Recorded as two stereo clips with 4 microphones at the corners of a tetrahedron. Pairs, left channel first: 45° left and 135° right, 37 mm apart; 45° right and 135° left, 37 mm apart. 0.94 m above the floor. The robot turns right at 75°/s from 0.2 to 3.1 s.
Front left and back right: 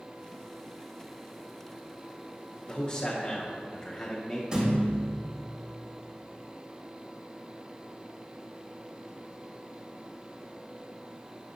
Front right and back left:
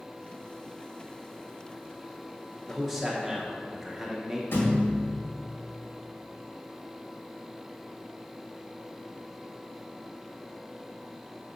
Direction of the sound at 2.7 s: 30° left.